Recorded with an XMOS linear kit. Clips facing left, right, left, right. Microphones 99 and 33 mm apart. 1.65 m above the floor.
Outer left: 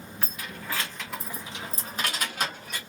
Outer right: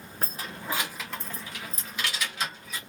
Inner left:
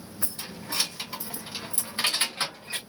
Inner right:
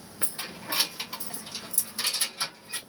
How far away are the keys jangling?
About 0.9 m.